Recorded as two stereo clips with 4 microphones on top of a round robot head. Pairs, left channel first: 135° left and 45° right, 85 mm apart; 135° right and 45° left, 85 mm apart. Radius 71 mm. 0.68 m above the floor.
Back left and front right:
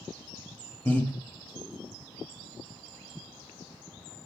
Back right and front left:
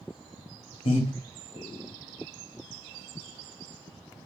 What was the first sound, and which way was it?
Breathing, 155° right.